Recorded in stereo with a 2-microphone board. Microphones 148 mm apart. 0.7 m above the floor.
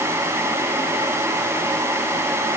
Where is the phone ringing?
No phone ringing in this recording.